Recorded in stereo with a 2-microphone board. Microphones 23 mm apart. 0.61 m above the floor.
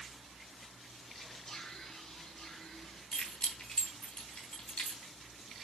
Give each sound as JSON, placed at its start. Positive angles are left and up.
{"t": 1.1, "sound": "whispering", "side_deg": 40, "distance_m": 1.3}
{"t": 3.1, "sound": "keys jangling", "side_deg": 70, "distance_m": 2.5}